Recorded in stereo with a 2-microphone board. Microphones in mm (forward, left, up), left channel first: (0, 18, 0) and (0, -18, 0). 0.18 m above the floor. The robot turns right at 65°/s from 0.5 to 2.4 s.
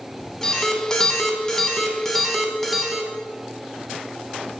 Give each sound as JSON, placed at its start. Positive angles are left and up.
{"t": 0.4, "sound": "an alarm", "side_deg": 10, "distance_m": 0.8}